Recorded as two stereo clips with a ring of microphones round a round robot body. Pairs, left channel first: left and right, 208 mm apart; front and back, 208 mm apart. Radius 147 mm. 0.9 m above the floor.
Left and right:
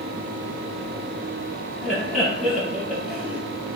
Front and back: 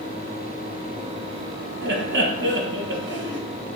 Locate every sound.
1.8 s laughter: straight behind, 1.5 m